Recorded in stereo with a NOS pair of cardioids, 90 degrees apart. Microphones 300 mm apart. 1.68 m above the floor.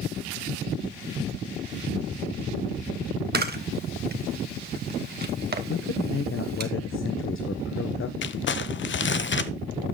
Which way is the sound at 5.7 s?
45° left.